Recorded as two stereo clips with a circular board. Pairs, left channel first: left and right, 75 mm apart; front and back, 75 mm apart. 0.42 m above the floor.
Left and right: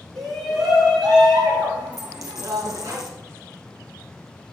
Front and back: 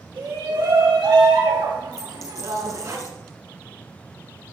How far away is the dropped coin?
About 3 m.